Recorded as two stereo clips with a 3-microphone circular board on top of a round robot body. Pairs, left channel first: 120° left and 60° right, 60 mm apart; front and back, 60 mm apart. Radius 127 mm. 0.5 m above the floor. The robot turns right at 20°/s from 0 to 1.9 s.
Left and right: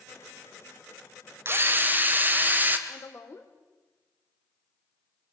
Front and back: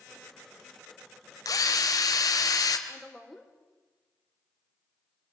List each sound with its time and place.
1.4 s a drill: 10° right, 1.9 m; by 2.8 s straight ahead, 1.9 m
2.9 s a woman speaking: 85° left, 2.5 m